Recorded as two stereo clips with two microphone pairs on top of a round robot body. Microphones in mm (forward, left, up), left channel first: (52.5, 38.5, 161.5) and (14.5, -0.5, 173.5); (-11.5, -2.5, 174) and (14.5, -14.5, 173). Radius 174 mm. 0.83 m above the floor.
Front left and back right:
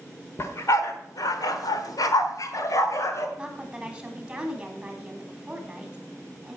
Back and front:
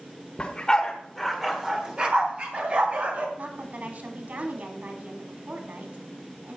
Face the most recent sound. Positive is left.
turn(degrees=-50)